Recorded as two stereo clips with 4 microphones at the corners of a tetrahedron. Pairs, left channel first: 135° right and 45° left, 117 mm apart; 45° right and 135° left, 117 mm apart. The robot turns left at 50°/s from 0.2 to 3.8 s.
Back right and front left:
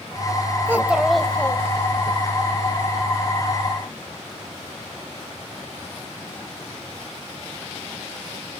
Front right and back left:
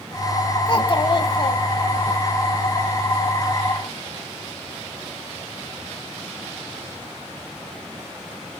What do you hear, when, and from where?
0.7 s a child speaking: 20° right, 0.7 m; by 2.1 s 95° right, 0.7 m